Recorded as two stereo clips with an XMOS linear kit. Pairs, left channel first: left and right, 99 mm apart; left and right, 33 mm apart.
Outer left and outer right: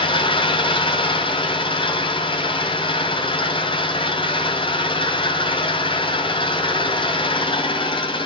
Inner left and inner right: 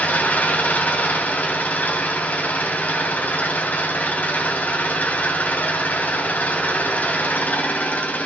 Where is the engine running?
60° left (ahead or behind), 2.5 m.